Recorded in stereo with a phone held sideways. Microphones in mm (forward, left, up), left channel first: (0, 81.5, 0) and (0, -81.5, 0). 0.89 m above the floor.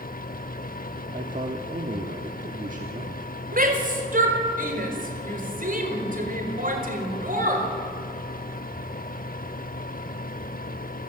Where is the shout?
55° right (ahead or behind), 4.5 m.